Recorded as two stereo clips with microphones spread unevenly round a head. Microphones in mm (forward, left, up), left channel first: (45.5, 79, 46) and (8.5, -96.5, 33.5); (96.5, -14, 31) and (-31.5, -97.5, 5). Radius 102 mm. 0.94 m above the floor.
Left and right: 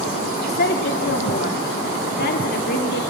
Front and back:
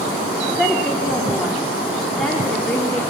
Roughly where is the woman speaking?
Behind left.